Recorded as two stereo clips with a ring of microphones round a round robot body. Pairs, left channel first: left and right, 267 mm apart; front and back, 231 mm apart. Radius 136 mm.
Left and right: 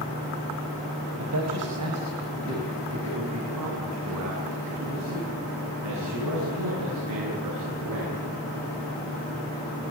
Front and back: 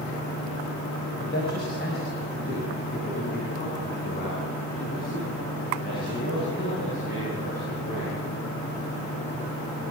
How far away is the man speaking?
About 5 m.